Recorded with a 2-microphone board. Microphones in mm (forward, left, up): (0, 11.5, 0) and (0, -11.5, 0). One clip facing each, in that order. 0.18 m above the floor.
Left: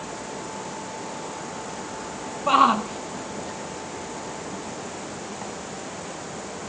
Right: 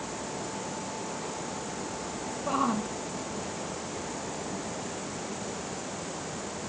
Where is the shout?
75° left (ahead or behind); by 5.5 s 80° left.